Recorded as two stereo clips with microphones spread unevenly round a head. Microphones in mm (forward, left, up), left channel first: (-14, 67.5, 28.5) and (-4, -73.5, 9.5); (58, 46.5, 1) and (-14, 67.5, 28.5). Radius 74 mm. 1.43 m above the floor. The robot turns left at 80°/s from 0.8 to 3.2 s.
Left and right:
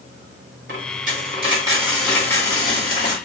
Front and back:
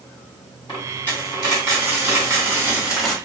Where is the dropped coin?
85° right, 1.6 m; by 3.1 s 90° left, 1.6 m.